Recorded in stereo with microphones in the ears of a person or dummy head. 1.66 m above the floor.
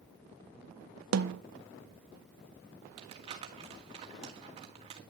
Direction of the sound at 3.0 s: 35° right (ahead or behind).